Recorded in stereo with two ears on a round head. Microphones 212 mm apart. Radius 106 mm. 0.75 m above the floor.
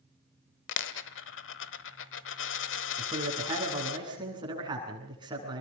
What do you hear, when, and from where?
0.7 s a dropped coin: 55° left (ahead or behind), 1.1 m
3.0 s a man speaking: 20° right (ahead or behind), 8 m